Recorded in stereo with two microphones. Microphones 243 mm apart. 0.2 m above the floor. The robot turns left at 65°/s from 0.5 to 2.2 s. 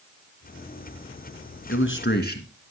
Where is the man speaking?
85° left, 2.0 m; by 2.5 s 50° left, 2.0 m.